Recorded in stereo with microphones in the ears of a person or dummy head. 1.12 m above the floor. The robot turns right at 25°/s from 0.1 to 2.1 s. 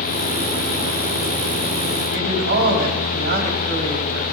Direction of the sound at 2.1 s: 60° right (ahead or behind).